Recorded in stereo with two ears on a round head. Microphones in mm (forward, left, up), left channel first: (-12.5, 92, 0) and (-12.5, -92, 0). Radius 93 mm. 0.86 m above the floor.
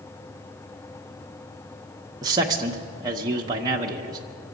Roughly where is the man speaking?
Centre.